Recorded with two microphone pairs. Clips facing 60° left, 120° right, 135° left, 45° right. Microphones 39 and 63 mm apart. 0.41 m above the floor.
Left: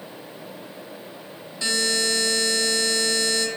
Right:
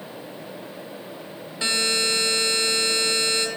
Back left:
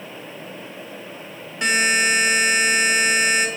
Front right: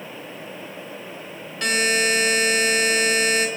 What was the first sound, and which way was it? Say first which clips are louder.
A buzzer: even, back left 2 dB; 155° right.